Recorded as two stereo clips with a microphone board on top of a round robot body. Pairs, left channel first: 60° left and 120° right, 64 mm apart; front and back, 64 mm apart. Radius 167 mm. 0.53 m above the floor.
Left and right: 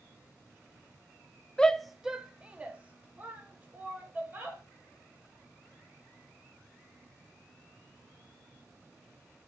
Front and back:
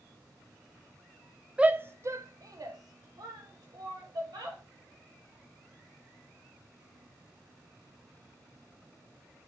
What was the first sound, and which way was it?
A shout, 120° left.